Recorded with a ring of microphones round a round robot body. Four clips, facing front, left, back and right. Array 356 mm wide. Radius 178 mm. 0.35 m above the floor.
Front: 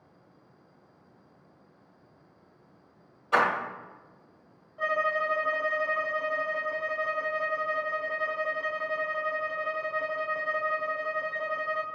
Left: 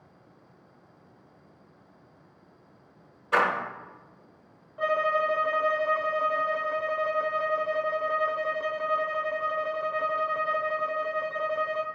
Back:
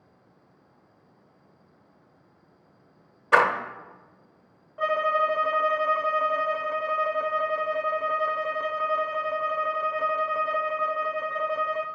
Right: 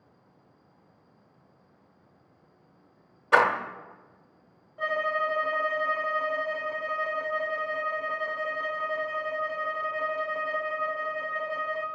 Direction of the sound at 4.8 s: 145° left.